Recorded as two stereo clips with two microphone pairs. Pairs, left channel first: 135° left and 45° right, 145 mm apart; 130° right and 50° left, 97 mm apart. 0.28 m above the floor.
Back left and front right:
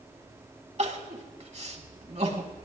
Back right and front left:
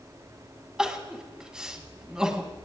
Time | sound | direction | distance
0.8 | crying | 30° right | 2 m